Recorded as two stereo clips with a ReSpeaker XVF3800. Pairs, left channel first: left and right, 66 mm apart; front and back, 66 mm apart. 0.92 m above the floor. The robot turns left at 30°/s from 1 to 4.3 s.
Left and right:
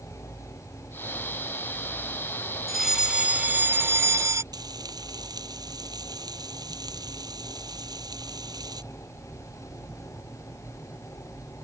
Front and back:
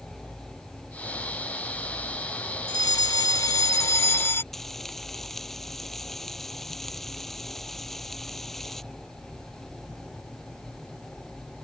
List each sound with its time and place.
2.7 s a fire alarm: straight ahead; by 4.4 s 50° right
4.5 s frying: 85° right